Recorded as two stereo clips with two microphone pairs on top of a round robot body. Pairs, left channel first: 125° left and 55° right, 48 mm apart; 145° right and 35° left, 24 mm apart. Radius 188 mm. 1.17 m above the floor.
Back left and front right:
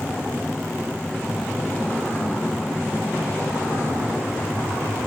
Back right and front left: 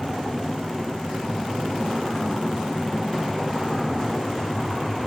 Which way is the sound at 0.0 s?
5° left.